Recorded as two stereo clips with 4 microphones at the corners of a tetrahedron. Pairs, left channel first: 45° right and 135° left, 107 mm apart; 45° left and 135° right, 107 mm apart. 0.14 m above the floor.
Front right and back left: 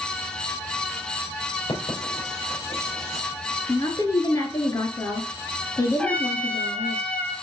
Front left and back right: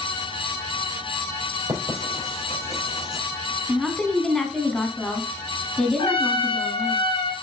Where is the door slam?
I don't hear a door slam.